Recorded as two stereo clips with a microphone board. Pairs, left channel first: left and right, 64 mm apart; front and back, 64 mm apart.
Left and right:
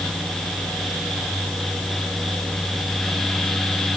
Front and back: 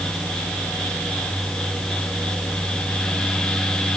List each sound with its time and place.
Only background noise.